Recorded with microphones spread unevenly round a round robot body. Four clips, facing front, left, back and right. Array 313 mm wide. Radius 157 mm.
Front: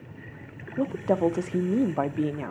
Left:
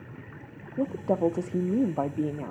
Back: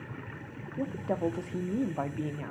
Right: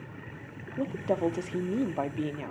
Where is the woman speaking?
25° left, 0.8 m.